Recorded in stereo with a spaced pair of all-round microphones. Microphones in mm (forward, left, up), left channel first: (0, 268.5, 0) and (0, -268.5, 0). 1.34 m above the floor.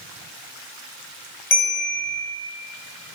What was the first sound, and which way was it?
A bell, 75° left (ahead or behind).